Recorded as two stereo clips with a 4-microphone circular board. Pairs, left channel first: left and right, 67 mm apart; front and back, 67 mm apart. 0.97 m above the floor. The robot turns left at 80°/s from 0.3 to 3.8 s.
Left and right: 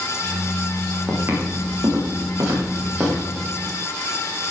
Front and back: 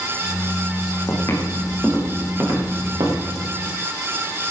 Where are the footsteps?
25° right, 6.5 m; by 3.2 s 175° left, 8 m.